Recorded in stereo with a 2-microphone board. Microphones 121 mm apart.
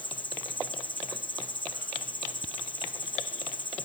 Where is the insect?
40° left (ahead or behind).